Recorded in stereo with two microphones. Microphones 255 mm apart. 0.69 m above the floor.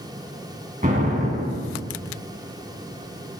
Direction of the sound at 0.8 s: 30° right (ahead or behind).